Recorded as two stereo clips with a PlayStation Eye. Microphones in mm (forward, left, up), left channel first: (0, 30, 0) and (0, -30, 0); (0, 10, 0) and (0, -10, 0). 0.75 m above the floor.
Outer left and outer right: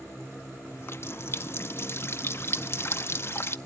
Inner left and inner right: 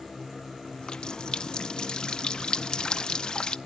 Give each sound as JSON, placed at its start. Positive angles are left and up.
{"t": 0.7, "sound": "a running tap", "side_deg": 40, "distance_m": 0.6}